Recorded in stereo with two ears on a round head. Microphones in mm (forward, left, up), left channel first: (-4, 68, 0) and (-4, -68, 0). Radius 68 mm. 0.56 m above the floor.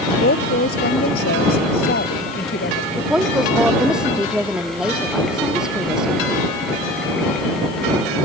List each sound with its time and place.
0.2 s a woman speaking: 70° left (ahead or behind)
3.0 s a woman speaking: 5° right (ahead or behind)